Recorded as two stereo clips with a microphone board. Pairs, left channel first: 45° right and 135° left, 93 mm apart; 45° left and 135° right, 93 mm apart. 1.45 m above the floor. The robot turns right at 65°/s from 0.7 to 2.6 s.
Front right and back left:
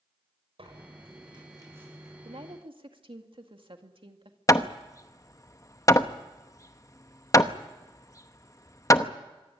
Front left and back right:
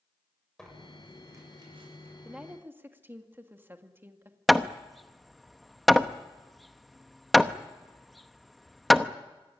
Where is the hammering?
45° right, 0.8 m.